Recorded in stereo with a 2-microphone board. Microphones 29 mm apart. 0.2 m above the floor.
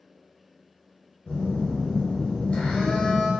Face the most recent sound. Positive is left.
turn(degrees=40)  # may be behind; listen again after turning